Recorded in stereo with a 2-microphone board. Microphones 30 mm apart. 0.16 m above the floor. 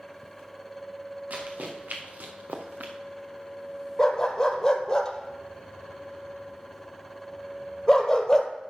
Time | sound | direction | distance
1.3 | running footsteps | 60° right (ahead or behind) | 3 m
4.0 | a dog barking | 20° left (ahead or behind) | 1.1 m